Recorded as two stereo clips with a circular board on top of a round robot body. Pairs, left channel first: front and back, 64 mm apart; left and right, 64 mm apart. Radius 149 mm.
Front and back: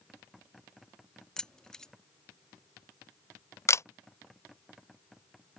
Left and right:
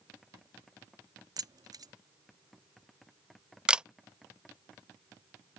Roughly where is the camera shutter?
Ahead.